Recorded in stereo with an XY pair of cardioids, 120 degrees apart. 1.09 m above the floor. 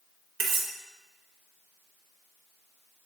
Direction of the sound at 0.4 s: 60° right.